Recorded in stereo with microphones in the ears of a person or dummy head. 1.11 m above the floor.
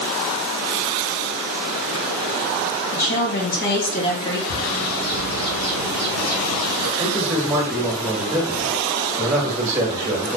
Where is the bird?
60° left (ahead or behind), 2 m.